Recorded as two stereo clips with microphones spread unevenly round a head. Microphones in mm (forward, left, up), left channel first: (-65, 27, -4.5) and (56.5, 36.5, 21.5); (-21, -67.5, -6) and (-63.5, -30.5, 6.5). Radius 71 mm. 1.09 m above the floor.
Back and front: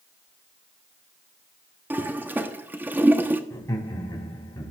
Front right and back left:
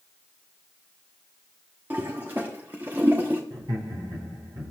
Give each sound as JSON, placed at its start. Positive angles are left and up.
{"t": 1.9, "sound": "a toilet flushing", "azimuth_deg": 75, "distance_m": 0.9}
{"t": 3.5, "sound": "laughter", "azimuth_deg": 125, "distance_m": 3.5}